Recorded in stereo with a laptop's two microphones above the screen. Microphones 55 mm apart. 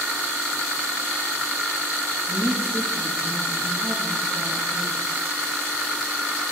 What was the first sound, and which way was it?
A woman speaking, 5° left (ahead or behind).